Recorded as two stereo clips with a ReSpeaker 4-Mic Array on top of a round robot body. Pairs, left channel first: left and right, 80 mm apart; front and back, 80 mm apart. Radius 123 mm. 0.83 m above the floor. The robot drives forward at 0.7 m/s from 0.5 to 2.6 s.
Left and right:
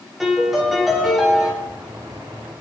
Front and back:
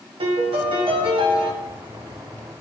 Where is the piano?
175° right, 1.4 m; by 1.5 s straight behind, 2 m.